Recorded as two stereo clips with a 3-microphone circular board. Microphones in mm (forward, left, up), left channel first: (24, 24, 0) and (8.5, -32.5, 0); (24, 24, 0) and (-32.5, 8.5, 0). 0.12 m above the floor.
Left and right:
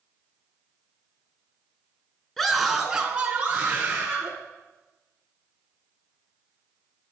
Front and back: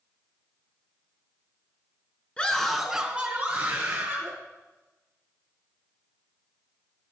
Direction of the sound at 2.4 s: 5° left.